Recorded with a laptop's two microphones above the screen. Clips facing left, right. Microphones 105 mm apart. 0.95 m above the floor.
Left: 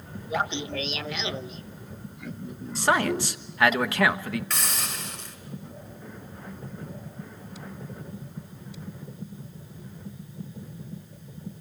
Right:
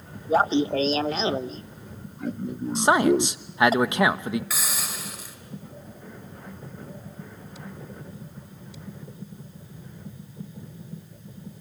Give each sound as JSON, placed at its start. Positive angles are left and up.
{"t": 0.3, "sound": "laughter", "side_deg": -40, "distance_m": 0.8}
{"t": 2.8, "sound": "a man speaking", "side_deg": -20, "distance_m": 1.2}
{"t": 4.5, "sound": "a hiss", "side_deg": -5, "distance_m": 2.5}